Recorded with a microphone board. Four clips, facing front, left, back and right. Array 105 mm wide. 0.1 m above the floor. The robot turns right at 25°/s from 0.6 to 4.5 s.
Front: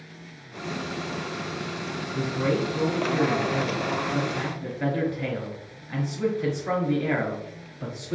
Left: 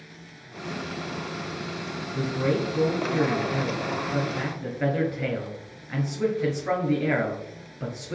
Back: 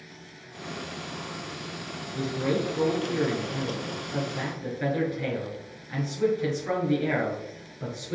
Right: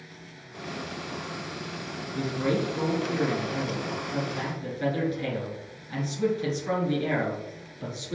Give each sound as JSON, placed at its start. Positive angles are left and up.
{"t": 2.1, "sound": "a man speaking", "azimuth_deg": 25, "distance_m": 1.4}